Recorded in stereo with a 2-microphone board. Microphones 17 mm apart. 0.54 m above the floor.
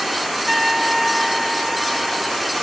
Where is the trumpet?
5° right (ahead or behind).